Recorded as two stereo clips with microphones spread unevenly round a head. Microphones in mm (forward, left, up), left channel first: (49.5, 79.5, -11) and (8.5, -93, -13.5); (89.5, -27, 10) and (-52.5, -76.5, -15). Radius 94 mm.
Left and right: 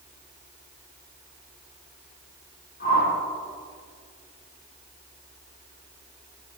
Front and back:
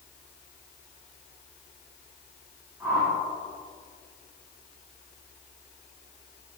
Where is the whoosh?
120° left, 5.5 m.